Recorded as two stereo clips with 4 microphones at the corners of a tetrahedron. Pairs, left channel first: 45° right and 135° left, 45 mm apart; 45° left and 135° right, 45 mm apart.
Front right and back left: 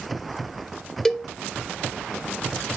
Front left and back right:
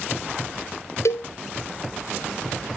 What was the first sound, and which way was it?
A cowbell, 35° left.